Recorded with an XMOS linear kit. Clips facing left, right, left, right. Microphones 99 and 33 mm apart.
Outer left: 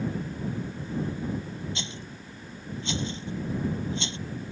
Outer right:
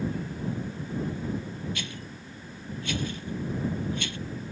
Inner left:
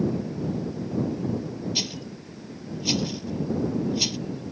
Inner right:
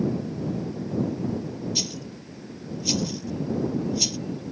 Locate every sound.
1.8 s a rattle: 25° left (ahead or behind)